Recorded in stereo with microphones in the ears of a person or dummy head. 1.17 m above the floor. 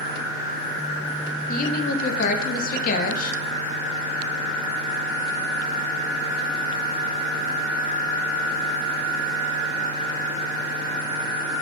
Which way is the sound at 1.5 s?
50° left (ahead or behind).